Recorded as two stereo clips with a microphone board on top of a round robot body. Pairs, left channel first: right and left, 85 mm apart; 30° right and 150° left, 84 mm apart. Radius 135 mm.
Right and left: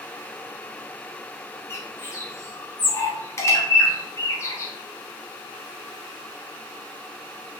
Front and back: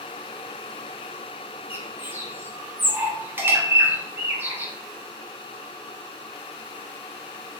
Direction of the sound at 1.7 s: 145° right.